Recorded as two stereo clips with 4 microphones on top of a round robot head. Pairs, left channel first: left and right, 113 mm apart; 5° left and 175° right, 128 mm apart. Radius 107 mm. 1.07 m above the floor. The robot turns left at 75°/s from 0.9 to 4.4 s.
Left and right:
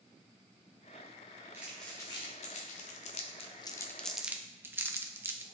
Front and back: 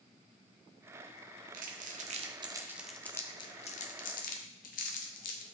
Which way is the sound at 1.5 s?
165° right.